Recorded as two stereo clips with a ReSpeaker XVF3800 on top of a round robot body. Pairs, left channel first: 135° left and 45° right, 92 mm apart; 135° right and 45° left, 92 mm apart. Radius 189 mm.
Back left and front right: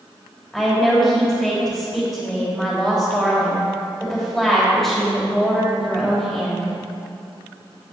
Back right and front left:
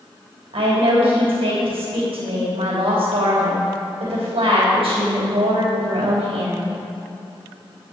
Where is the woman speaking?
50° left, 3 m.